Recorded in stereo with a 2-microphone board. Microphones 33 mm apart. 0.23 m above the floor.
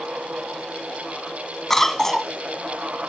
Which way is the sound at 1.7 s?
10° left (ahead or behind).